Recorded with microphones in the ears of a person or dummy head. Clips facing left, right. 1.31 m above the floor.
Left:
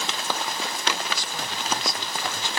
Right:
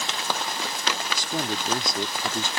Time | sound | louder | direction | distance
1.1 | a man speaking | right 5 dB | 40° right (ahead or behind) | ?